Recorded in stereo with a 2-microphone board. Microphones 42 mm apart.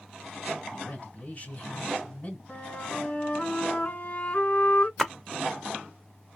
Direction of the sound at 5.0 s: 5° left (ahead or behind).